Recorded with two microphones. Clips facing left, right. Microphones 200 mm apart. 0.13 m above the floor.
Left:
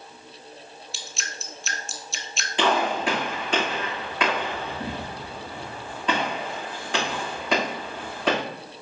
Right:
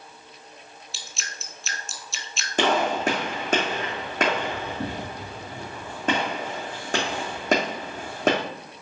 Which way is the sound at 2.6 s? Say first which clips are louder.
Right 1 dB; 45° right (ahead or behind).